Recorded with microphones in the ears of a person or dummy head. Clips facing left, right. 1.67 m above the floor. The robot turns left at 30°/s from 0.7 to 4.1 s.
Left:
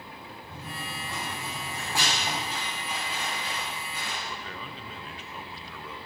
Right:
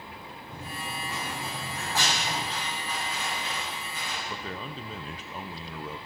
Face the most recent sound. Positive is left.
turn(degrees=-30)  # may be behind; listen again after turning